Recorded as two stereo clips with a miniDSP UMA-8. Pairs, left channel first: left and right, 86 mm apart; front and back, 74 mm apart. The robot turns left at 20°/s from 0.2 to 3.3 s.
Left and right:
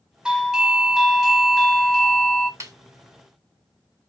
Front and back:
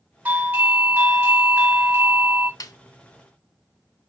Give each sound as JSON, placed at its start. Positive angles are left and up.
{"t": 0.2, "sound": "a doorbell", "azimuth_deg": -155, "distance_m": 1.3}
{"t": 2.6, "sound": "a snare drum", "azimuth_deg": -35, "distance_m": 0.8}